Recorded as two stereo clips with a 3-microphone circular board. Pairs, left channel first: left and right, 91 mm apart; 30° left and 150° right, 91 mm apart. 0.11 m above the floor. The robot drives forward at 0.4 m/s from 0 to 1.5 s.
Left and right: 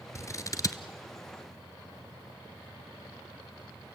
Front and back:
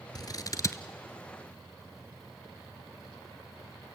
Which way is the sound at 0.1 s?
45° left.